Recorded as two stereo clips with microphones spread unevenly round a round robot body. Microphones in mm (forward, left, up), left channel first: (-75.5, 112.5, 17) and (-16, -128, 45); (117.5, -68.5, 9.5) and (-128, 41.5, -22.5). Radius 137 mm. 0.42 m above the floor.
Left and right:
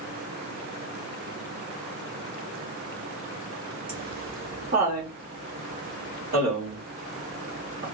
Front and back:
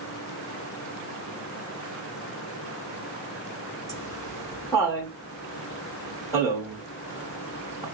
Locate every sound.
3.9 s laughter: 105° right, 1.2 m